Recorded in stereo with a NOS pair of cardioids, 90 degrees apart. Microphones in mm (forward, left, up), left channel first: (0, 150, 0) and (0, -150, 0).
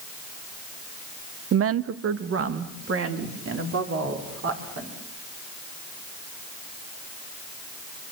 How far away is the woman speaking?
About 0.8 m.